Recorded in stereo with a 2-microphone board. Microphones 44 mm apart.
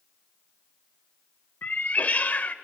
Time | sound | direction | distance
1.6 | a cat meowing | 40° left (ahead or behind) | 0.6 m